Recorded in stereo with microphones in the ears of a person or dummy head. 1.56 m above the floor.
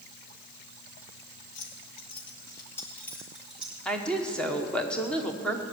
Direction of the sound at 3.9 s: 5° left (ahead or behind).